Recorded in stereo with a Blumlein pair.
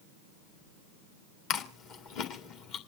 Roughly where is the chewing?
Ahead left.